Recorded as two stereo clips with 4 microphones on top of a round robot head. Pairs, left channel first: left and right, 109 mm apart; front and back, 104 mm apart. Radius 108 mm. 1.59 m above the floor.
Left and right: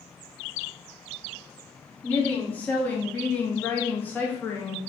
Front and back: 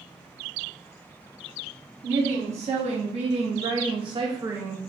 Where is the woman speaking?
165° left, 1.6 m; by 4.9 s 80° left, 0.5 m.